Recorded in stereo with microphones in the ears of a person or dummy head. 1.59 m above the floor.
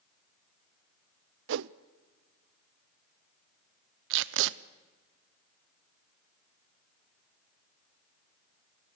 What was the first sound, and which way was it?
A whoosh, 70° right (ahead or behind).